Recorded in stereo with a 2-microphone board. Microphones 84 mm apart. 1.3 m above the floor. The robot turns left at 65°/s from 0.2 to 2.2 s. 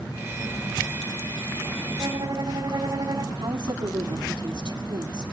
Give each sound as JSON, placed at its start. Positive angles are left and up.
{"t": 2.0, "sound": "a violin", "side_deg": -45, "distance_m": 4.0}
{"t": 3.4, "sound": "a woman speaking", "side_deg": -80, "distance_m": 4.0}